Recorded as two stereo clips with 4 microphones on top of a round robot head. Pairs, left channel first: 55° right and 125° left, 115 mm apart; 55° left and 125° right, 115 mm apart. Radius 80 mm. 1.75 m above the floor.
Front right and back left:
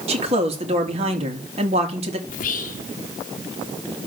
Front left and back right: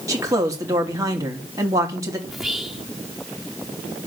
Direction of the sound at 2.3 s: 40° right.